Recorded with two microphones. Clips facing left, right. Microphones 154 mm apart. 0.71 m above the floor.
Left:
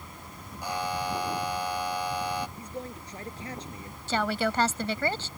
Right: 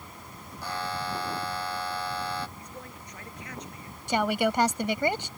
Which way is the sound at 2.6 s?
30° left (ahead or behind).